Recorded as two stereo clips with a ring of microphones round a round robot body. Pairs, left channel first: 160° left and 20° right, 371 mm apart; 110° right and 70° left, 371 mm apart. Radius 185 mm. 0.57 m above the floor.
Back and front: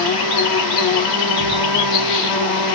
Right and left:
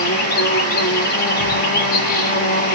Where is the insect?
175° right, 2.0 m.